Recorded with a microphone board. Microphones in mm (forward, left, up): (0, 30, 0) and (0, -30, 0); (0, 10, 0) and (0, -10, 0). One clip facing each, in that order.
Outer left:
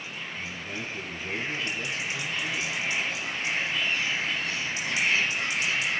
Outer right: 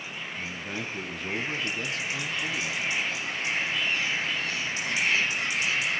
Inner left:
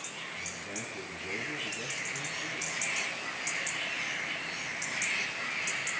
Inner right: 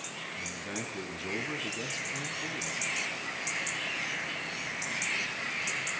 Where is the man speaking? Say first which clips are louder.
Outer right 2 dB, inner right 2 dB; 65° right (ahead or behind), 4 m.